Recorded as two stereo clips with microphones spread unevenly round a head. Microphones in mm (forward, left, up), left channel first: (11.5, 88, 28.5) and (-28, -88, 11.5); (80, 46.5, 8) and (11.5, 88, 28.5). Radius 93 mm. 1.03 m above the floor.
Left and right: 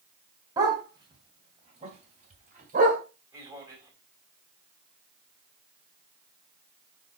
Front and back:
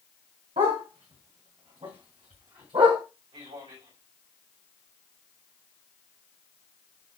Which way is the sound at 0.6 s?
175° right.